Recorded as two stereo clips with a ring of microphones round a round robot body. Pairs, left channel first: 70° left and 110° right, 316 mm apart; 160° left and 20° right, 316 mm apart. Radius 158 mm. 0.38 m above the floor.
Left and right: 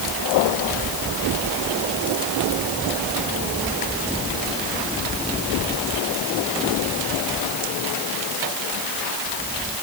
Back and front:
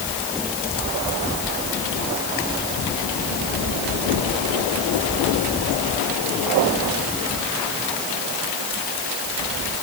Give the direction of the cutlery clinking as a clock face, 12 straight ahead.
No cutlery clinking in this recording.